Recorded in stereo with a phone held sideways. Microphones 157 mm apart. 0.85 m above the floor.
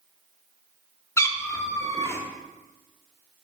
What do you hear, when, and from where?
1.2 s a cat meowing: 20° left (ahead or behind), 0.5 m